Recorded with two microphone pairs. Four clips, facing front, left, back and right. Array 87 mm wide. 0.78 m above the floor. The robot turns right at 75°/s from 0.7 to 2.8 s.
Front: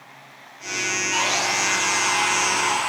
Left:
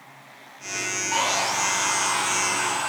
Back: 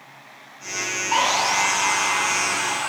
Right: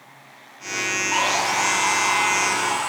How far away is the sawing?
About 5 m.